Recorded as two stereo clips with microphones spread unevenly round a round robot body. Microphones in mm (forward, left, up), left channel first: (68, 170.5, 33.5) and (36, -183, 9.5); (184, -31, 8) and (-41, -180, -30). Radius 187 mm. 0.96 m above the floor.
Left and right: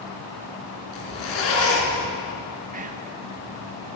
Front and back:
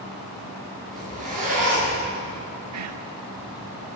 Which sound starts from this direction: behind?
Whispering, at 2.7 s.